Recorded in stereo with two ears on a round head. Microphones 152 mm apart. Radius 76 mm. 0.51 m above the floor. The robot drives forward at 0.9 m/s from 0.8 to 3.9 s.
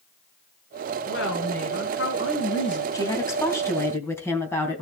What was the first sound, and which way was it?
A woman speaking, 80° left.